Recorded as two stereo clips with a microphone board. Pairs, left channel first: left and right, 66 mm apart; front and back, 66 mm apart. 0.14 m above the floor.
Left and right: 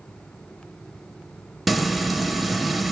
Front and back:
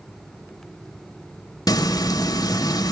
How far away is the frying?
About 0.7 m.